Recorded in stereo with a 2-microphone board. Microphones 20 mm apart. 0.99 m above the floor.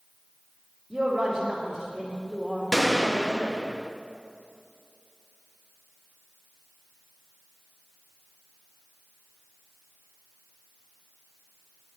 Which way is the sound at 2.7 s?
10° right (ahead or behind).